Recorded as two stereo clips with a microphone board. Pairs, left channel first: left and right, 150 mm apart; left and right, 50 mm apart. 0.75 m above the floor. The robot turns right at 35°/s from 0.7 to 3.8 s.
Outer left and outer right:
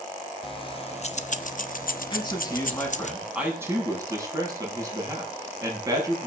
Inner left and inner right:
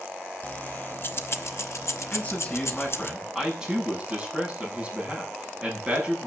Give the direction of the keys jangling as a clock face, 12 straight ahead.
11 o'clock.